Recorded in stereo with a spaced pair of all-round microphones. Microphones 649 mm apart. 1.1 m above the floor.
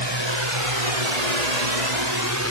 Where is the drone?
40° right (ahead or behind); by 2.5 s 20° right (ahead or behind).